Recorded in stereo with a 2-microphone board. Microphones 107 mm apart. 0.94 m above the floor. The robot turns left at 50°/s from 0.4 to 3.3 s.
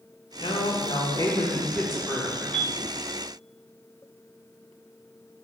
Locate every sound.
0.4 s a woman speaking: 80° left, 0.8 m; by 2.4 s 20° right, 0.8 m
2.5 s a piano: 10° left (ahead or behind), 0.5 m; by 2.8 s centre (ahead or behind), 0.5 m